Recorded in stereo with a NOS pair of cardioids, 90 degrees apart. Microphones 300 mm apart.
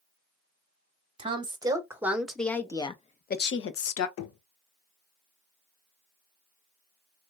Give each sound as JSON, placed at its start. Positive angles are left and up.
{"t": 1.2, "sound": "a woman speaking", "azimuth_deg": -20, "distance_m": 1.5}
{"t": 4.2, "sound": "knocking", "azimuth_deg": 70, "distance_m": 0.8}